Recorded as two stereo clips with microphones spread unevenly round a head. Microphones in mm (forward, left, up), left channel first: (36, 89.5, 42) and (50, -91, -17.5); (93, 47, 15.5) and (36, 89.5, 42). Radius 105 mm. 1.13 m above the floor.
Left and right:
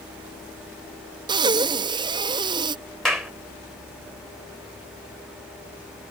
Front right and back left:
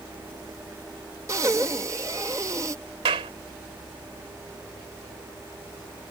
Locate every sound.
1.3 s breathing: 165° right
3.0 s a clap: 175° right